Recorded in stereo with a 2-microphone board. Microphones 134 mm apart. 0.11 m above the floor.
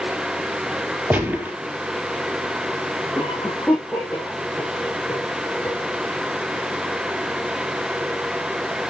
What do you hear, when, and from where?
1.1 s a gunshot: 10° right (ahead or behind), 3 m
3.1 s a cough: 5° left (ahead or behind), 5 m